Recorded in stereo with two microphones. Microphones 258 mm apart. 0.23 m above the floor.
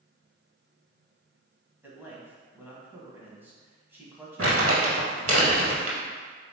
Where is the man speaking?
10° right (ahead or behind), 1.3 m.